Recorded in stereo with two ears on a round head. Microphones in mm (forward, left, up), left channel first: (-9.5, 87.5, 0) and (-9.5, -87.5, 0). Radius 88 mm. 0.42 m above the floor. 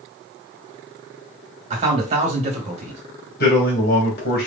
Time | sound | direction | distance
1.7 | a man speaking | 35° right (ahead or behind) | 1.8 m
3.4 | a man speaking | 55° left (ahead or behind) | 2.5 m